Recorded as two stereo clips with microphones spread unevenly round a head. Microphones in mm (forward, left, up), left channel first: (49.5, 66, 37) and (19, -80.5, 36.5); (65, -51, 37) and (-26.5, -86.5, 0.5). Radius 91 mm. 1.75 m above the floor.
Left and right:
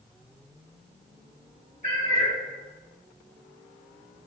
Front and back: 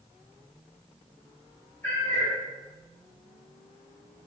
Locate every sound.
1.8 s a cat meowing: 50° left, 1.3 m